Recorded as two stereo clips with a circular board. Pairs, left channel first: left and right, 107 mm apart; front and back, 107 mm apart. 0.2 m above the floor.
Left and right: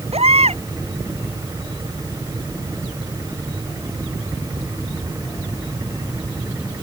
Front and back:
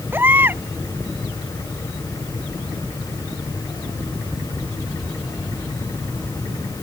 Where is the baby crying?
110° right.